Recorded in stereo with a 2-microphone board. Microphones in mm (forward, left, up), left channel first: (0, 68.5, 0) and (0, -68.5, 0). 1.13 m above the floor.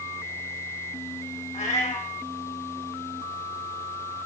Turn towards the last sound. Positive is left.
turn(degrees=60)  # may be behind; listen again after turning